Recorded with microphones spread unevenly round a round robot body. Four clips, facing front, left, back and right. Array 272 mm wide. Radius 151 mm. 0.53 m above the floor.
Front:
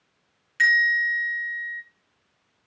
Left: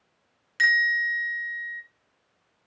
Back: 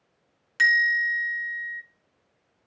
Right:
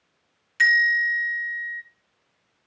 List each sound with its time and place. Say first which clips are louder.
0.6 s a bell: right 3 dB, front 1 dB; straight behind, 3 m